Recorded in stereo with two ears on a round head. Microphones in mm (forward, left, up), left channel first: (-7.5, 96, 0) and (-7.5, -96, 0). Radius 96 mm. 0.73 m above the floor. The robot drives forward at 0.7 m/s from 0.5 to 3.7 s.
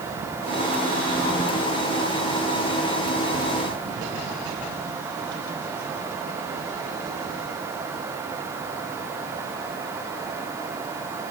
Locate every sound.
Only background noise.